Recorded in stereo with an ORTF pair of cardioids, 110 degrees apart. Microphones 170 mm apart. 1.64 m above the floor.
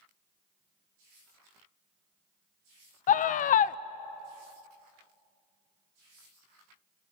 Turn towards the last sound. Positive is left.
turn(degrees=50)